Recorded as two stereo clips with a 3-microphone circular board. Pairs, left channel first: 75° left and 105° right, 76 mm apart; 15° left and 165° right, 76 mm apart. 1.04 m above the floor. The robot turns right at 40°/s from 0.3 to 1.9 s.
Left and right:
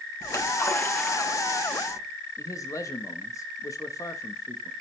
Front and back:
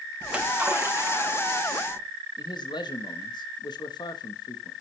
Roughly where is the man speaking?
Ahead left.